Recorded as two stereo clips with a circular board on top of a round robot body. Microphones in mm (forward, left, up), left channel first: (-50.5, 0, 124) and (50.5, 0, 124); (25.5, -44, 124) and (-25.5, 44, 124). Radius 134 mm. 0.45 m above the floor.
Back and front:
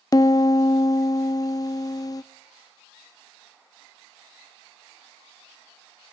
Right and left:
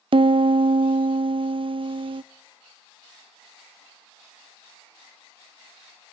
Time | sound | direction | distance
0.1 | a piano | 135° left | 0.8 m